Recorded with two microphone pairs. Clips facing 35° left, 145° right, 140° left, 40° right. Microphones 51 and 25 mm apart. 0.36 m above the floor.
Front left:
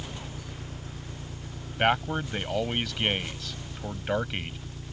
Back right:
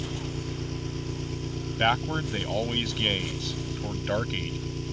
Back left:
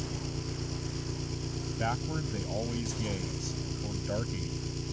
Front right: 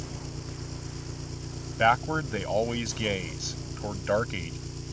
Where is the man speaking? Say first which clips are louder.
Even, front right 11 dB; 55° right.